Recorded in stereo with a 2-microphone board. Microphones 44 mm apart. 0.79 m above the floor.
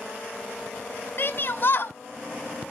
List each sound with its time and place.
1.2 s a shout: 50° left (ahead or behind), 1.1 m